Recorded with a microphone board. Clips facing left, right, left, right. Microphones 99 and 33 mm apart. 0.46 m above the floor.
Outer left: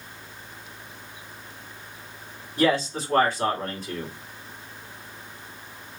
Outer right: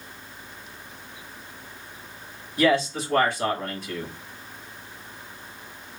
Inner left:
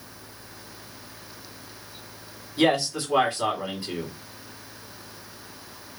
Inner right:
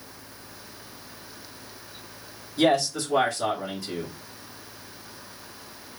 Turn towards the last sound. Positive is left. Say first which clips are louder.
# outer right 1 dB, even
turn(degrees=40)  # may be behind; listen again after turning